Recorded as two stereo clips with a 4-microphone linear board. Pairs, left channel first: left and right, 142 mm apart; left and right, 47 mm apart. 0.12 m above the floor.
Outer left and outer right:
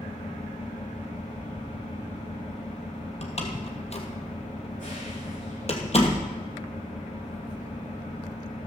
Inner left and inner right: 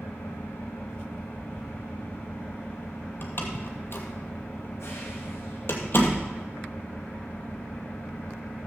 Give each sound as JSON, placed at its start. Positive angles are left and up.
{"t": 0.0, "sound": "an engine running", "side_deg": 75, "distance_m": 7.5}
{"t": 3.2, "sound": "a door slam", "side_deg": 50, "distance_m": 2.5}